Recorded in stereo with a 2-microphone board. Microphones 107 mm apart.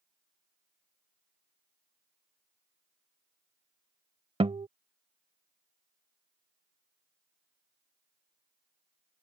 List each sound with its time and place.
4.4 s a guitar: 80° right